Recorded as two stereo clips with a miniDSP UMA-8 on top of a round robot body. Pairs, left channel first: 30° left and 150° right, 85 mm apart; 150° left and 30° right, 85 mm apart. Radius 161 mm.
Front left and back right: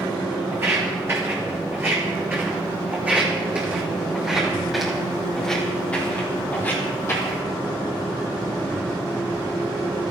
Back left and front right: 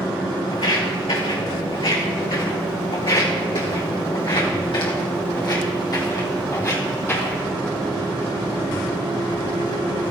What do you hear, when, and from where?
0.5 s footsteps: 150° left, 4.5 m; by 7.4 s 85° left, 2.5 m